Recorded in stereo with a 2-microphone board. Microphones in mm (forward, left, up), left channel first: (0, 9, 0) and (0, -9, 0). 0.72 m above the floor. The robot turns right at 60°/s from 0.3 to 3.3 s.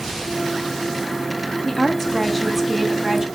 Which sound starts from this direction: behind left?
A woman speaking, at 1.6 s.